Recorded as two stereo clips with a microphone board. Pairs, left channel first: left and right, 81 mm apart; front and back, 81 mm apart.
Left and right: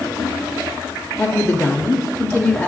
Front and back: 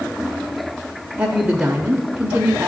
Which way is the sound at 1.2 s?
130° left.